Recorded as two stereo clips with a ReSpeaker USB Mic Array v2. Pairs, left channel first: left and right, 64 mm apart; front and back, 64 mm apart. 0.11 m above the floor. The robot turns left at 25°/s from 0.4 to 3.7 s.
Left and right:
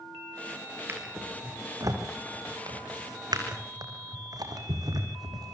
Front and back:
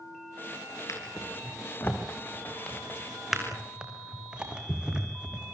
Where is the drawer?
35° right, 3.5 m; by 5.5 s 105° right, 3.5 m.